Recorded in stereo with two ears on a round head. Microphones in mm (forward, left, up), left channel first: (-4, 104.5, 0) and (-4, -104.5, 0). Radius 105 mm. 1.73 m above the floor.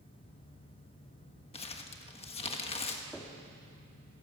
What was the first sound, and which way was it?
Crumpling, 25° left (ahead or behind).